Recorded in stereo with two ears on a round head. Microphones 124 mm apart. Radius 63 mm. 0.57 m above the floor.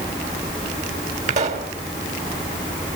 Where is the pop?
60° right (ahead or behind), 2.5 m.